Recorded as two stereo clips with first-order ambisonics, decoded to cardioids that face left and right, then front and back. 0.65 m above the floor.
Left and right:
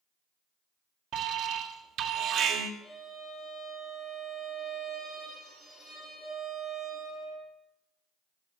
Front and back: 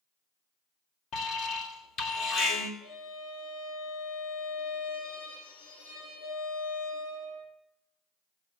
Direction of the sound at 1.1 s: 45° right.